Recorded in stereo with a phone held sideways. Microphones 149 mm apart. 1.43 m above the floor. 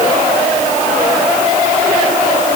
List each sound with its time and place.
Only background noise.